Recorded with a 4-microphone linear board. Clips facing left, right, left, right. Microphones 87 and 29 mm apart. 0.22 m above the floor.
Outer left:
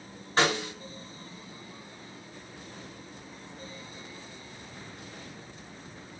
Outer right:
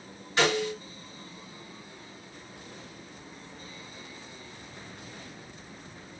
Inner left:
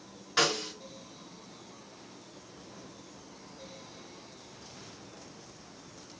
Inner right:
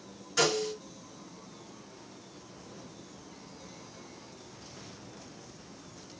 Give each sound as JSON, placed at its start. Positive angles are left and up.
{"t": 0.4, "sound": "a snare drum", "side_deg": 40, "distance_m": 2.5}